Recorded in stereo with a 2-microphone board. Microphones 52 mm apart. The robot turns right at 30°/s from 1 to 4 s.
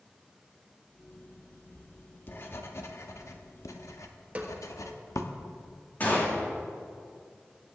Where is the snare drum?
25° right (ahead or behind), 1.3 m.